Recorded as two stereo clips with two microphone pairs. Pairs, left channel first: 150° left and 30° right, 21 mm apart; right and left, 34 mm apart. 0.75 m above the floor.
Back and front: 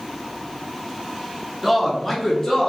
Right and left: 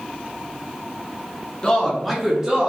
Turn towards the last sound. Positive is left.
turn(degrees=115)